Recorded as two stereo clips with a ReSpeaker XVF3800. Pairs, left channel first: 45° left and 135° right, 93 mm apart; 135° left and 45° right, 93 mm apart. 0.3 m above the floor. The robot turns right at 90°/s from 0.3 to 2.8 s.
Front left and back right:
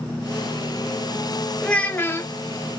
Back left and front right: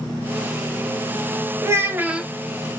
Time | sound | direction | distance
1.6 | a child speaking | 30° right | 0.7 m